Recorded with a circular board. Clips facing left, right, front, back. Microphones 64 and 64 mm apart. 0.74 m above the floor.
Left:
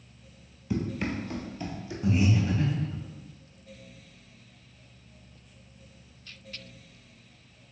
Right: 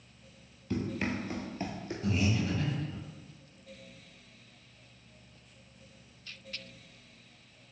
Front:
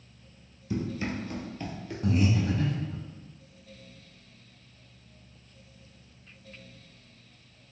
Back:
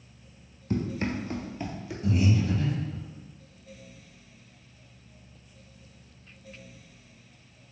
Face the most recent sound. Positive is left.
turn(degrees=25)